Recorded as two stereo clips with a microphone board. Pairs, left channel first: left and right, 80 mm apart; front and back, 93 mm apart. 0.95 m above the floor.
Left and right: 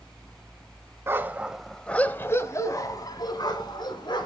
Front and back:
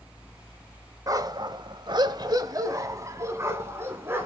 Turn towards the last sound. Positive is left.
turn(degrees=115)